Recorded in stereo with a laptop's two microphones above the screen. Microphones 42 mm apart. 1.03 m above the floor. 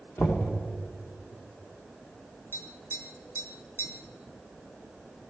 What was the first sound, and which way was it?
Knocking, 55° left (ahead or behind).